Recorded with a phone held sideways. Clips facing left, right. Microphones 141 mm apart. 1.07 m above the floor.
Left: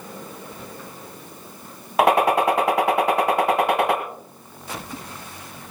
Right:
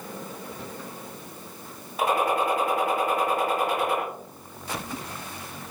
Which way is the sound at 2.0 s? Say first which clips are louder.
Left 7 dB; 70° left (ahead or behind).